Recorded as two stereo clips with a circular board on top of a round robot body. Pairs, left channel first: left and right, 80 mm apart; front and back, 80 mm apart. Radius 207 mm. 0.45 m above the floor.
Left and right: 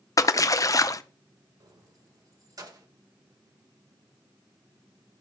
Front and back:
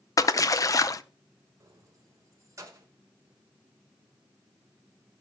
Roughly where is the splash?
Ahead left.